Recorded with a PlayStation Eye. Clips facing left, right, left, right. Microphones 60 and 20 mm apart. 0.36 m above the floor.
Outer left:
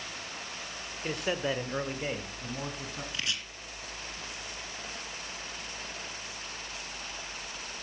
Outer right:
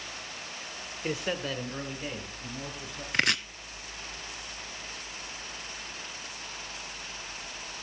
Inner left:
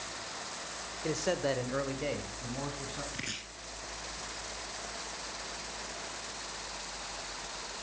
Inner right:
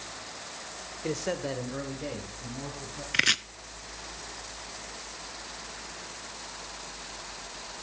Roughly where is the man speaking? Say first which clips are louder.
Outer left 1 dB, even; centre.